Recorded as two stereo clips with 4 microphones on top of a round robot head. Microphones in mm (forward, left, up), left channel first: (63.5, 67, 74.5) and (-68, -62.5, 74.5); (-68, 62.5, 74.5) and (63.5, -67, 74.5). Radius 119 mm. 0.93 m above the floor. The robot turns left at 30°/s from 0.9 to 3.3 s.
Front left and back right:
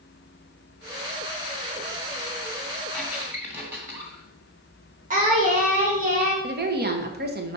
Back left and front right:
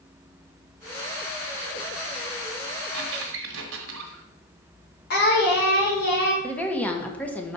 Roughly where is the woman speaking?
Behind right.